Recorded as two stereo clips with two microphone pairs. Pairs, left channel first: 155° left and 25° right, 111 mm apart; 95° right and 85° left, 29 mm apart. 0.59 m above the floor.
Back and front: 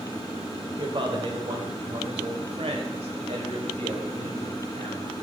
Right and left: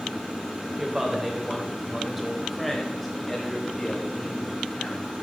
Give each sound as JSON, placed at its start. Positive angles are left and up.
{"t": 0.8, "sound": "a man speaking", "azimuth_deg": 15, "distance_m": 3.0}